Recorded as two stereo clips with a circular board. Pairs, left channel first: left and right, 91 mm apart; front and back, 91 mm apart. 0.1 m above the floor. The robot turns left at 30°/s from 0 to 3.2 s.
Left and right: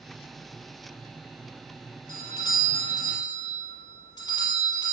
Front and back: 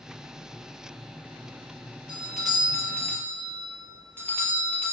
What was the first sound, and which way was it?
A doorbell, 100° left.